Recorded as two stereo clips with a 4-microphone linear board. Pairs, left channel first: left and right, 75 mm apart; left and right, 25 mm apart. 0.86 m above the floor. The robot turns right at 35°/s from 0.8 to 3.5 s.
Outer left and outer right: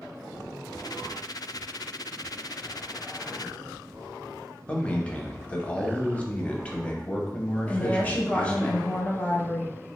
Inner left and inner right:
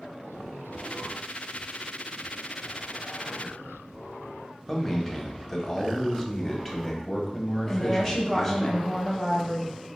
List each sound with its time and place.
4.7 s a man speaking: 15° left (ahead or behind), 0.7 m
7.7 s a woman speaking: 20° left (ahead or behind), 0.8 m